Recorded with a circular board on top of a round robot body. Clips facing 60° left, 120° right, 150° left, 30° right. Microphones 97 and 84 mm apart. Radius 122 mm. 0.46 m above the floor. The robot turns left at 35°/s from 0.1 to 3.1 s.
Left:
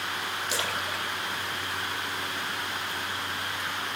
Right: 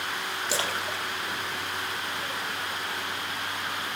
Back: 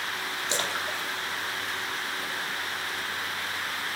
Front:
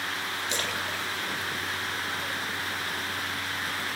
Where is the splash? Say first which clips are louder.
Right 2 dB, back 3 dB; 160° right, 1.3 m; by 2.7 s 125° left, 1.3 m.